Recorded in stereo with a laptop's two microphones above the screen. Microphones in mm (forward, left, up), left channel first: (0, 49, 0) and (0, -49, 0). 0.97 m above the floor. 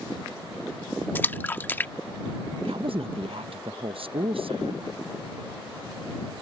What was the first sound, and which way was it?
A splash, 20° left (ahead or behind).